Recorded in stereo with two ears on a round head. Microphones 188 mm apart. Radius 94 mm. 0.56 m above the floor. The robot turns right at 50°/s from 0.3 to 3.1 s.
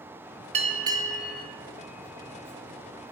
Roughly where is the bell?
Ahead right.